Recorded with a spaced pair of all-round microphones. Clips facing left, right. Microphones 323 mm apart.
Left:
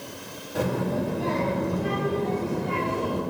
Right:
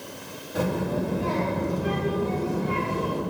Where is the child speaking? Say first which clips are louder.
Even; centre (ahead or behind), 2 m; by 3.2 s 10° right (ahead or behind), 3.5 m.